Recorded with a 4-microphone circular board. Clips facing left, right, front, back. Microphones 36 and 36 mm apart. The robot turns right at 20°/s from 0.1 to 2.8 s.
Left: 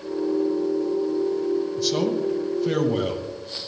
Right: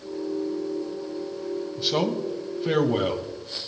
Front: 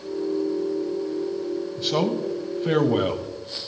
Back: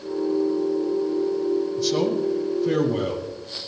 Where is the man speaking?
40° right, 1.5 m; by 3.2 s 20° right, 1.5 m.